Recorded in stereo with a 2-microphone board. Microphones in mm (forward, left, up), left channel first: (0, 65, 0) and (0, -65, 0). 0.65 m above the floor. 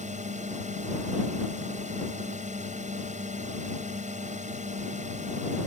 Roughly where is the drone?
Right.